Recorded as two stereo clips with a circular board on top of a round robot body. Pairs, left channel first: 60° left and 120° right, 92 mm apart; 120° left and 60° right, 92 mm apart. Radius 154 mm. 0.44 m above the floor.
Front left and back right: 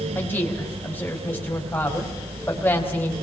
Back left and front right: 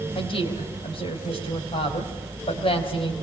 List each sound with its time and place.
0.1 s a woman speaking: 130° left, 4.5 m